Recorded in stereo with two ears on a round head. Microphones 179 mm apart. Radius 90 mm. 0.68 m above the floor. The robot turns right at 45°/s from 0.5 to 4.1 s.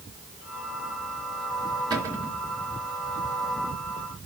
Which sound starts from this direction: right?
A cupboard door, at 1.9 s.